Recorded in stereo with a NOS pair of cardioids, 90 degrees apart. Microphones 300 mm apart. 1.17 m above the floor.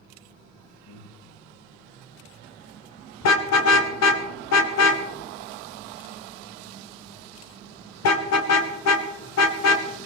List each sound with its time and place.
0.8 s breathing: 65° left, 7.5 m
3.2 s a car horn: 60° left, 2 m